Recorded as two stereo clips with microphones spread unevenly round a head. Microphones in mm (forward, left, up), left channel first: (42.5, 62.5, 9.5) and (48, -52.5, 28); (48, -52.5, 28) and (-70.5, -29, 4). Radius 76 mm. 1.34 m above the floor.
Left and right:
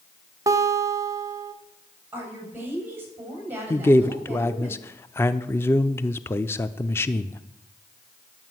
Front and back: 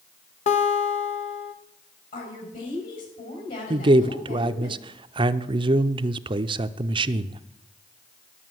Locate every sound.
0.5 s a guitar: 30° right, 1.1 m
2.1 s a woman speaking: 15° right, 7.5 m
3.7 s a man speaking: 150° left, 0.5 m